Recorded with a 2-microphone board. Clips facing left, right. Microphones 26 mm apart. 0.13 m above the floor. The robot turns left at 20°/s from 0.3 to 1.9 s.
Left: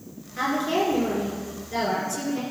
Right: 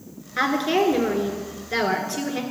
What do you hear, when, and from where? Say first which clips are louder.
0.4 s a woman speaking: right 3 dB; 70° right, 1.9 m; by 2.4 s 100° right, 1.9 m